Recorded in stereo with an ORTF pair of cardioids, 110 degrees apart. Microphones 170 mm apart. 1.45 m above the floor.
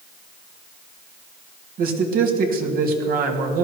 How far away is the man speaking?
About 2.5 m.